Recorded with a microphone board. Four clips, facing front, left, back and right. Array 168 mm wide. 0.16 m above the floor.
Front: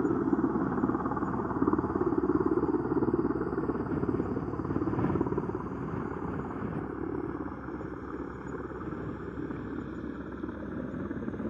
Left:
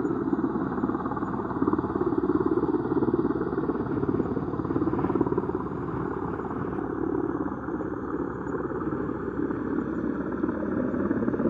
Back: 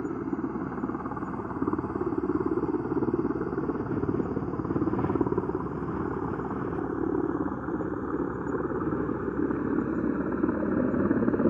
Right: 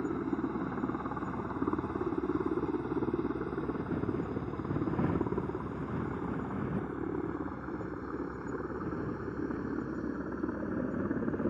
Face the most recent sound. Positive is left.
turn(degrees=150)